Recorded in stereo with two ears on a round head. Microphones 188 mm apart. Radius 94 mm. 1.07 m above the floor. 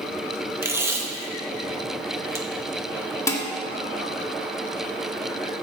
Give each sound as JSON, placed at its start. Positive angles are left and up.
{"t": 0.6, "sound": "tape being pulled", "side_deg": -10, "distance_m": 1.1}
{"t": 3.3, "sound": "dishes clattering", "side_deg": 15, "distance_m": 1.7}